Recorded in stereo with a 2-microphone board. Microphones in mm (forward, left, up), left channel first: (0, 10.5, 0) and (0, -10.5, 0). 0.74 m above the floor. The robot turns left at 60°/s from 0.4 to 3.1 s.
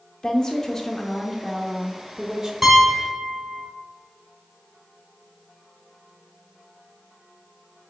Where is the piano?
10° left (ahead or behind), 1.5 m; by 3.6 s 20° right (ahead or behind), 1.5 m.